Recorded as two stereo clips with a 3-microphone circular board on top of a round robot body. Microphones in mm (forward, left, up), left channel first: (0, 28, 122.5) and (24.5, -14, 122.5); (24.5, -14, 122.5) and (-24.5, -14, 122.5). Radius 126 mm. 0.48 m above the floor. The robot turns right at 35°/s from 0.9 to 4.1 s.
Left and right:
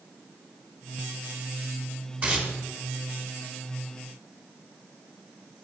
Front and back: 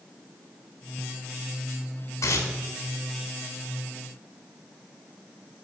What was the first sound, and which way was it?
Tearing paper, 5° right.